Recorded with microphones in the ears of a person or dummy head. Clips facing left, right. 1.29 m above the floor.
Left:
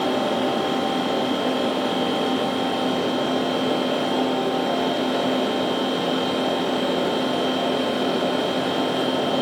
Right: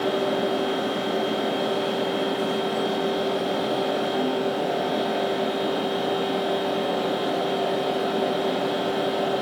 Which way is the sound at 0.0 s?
80° left.